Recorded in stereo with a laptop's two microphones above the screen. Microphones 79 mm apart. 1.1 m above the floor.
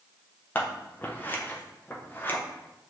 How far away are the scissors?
About 0.6 m.